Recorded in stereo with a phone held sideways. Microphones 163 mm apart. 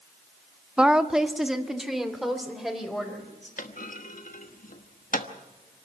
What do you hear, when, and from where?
0.8 s a woman speaking: 5° right (ahead or behind), 0.6 m; by 3.5 s centre (ahead or behind), 4.5 m
3.6 s a clunk: 55° left (ahead or behind), 1.2 m